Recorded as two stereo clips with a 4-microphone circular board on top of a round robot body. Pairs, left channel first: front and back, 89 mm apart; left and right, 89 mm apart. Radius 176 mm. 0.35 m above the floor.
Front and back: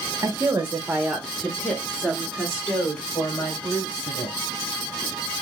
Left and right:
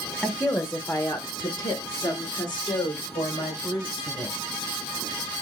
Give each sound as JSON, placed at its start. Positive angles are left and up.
{"t": 0.2, "sound": "a woman speaking", "azimuth_deg": 165, "distance_m": 1.2}